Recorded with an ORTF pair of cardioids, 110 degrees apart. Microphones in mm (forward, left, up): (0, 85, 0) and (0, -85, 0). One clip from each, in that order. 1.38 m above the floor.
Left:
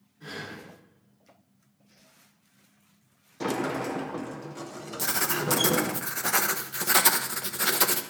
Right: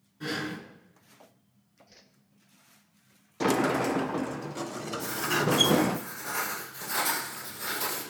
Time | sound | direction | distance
0.2 | breathing | 60° right | 4 m
1.9 | a whoosh | 60° right | 1.6 m
3.4 | a sliding door | 20° right | 0.6 m
5.0 | writing | 70° left | 1.3 m